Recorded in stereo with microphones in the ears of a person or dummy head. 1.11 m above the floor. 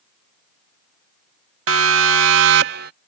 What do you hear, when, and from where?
1.7 s a siren: 85° right; by 2.9 s 55° right (ahead or behind)